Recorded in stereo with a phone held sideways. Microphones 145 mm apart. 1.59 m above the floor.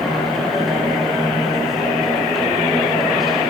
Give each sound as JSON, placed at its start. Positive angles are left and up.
{"t": 0.0, "sound": "a machine running", "side_deg": 0, "distance_m": 5.5}